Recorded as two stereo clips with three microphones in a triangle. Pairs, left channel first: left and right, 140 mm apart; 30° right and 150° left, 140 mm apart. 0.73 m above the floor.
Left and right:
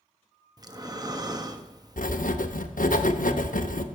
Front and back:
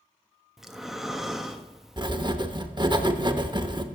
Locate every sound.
0.6 s breathing: 125° right, 0.7 m
2.0 s writing: 95° left, 0.7 m